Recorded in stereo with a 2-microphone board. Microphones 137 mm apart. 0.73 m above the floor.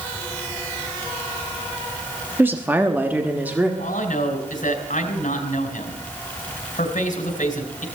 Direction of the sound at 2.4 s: 15° right (ahead or behind).